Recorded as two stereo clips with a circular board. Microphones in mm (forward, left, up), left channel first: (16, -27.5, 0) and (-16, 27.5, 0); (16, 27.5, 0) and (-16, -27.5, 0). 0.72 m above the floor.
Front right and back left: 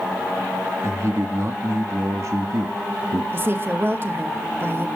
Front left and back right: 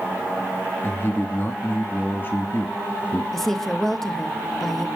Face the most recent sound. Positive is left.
turn(degrees=145)